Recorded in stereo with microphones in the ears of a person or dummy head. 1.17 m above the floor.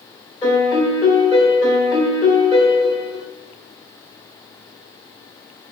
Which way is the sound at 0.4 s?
25° left (ahead or behind).